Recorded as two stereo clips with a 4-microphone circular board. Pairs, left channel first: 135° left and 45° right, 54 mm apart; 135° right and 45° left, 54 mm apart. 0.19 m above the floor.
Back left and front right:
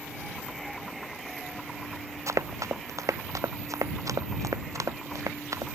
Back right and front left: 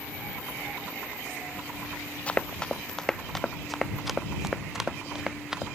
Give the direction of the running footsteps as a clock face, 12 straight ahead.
2 o'clock.